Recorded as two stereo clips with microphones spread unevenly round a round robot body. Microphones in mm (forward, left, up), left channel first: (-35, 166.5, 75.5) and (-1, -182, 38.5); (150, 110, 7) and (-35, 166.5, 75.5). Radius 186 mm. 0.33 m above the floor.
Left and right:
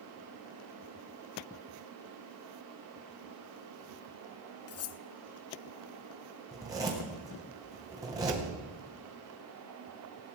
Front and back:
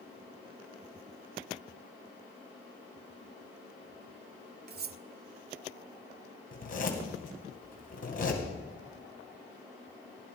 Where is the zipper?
10° right, 3 m.